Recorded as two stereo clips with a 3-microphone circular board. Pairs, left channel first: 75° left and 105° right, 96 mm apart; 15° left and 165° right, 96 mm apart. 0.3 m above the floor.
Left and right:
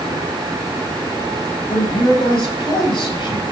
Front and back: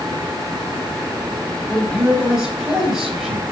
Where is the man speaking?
110° left, 9.5 m.